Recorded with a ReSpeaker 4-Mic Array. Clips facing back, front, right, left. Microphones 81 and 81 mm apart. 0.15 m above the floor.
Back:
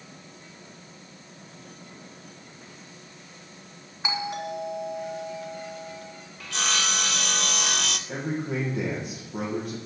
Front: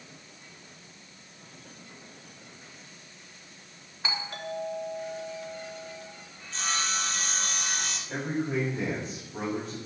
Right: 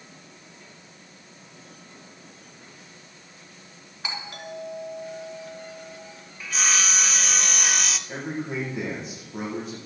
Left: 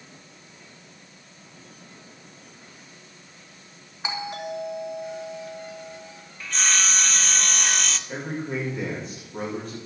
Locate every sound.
4.0 s a doorbell: 135° left, 2.5 m
6.4 s sawing: 175° right, 0.6 m
8.1 s a man speaking: 170° right, 7 m